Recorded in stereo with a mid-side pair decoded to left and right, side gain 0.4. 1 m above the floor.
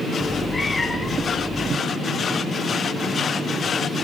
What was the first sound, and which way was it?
A cat meowing, 25° left.